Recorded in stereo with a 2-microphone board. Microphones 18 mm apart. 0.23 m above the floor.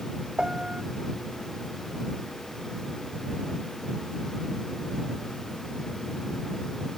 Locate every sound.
0.4 s a piano: 50° right (ahead or behind)